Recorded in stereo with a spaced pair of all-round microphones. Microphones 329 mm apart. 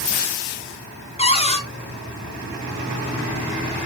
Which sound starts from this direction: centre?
A cupboard door, at 1.2 s.